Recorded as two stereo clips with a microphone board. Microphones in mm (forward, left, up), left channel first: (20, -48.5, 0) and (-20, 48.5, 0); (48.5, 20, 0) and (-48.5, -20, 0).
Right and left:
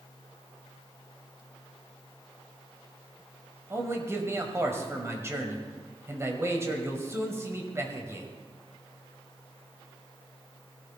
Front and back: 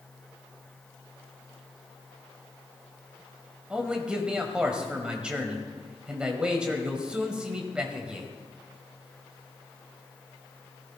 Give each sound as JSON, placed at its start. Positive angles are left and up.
{"t": 3.7, "sound": "a man speaking", "azimuth_deg": 130, "distance_m": 1.7}